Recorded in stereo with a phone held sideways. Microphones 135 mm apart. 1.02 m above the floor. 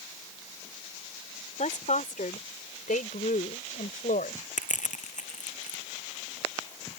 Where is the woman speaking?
65° left (ahead or behind); by 4.4 s 85° left.